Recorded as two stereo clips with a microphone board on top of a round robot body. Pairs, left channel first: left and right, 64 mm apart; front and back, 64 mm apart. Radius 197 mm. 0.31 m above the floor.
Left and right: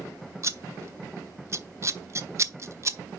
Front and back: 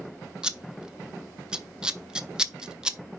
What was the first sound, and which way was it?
Scissors, 105° right.